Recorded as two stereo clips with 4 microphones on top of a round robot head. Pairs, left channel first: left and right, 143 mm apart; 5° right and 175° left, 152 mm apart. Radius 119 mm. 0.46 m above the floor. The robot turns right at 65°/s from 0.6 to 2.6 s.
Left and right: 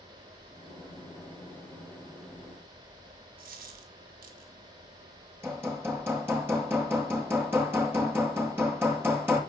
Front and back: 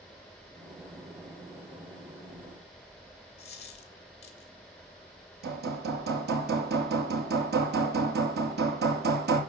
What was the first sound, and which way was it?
A dropped coin, 60° right.